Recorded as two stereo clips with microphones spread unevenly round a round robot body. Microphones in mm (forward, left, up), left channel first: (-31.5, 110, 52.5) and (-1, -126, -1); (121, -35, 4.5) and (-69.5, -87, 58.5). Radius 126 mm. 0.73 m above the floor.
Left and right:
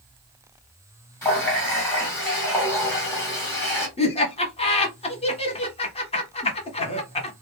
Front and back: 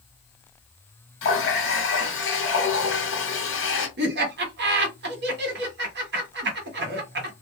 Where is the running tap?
15° left, 1.5 m.